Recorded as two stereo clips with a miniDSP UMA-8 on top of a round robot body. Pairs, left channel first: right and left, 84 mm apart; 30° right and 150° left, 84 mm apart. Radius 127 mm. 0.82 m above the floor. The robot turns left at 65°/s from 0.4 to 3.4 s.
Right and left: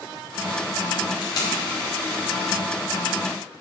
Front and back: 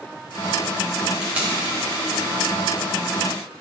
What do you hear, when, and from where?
1.2 s tape being pulled: 125° right, 1.0 m; by 1.5 s 145° right, 1.0 m